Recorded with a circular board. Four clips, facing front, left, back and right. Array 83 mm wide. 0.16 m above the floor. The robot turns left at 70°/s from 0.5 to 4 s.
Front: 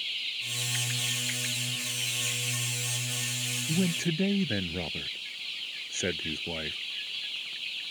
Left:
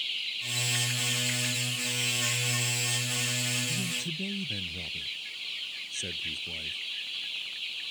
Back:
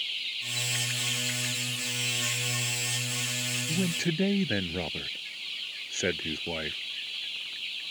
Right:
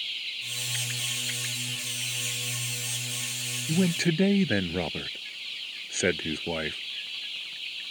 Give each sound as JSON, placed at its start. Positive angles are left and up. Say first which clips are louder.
{"t": 3.7, "sound": "a man speaking", "louder": "right 11 dB, front 1 dB", "azimuth_deg": -80}